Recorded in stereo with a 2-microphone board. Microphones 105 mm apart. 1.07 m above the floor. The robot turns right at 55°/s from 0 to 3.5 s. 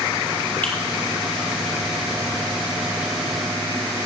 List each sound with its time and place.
0.6 s a finger snap: 15° left (ahead or behind), 2.5 m; by 0.7 s 20° left (ahead or behind), 2.5 m